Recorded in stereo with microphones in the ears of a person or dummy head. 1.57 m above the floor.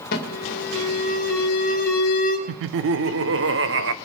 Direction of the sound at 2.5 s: 70° right (ahead or behind).